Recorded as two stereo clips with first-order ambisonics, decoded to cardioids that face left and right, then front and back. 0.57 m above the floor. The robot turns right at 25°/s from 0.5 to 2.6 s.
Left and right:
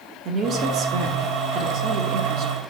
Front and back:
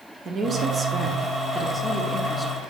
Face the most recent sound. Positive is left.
turn(degrees=-75)